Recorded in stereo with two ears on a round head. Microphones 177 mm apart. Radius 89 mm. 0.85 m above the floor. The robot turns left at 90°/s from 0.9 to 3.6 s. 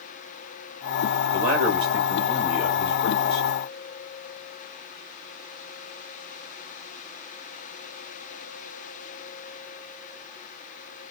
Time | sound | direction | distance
1.3 | a man speaking | 110° right | 1.5 m